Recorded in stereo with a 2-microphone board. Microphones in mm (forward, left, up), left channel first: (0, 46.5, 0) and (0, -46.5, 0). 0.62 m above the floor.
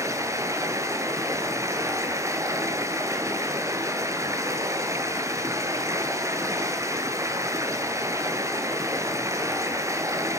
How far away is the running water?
About 2 m.